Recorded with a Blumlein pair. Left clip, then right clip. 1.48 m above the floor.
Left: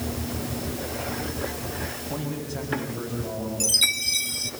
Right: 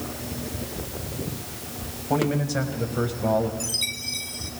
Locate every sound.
2.1 s a man speaking: 60° right, 7 m; by 3.5 s 55° right, 6.5 m
3.6 s a chime: 20° left, 1.7 m